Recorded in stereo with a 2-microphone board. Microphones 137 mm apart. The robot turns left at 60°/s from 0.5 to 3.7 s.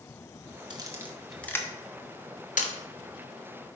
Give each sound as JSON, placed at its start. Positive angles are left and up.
{"t": 0.7, "sound": "a camera shutter", "side_deg": -35, "distance_m": 0.9}